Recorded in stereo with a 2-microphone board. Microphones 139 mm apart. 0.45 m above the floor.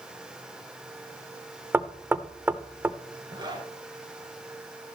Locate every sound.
1.7 s knocking: 15° right (ahead or behind), 0.6 m
3.3 s a zipper: 30° right (ahead or behind), 3.5 m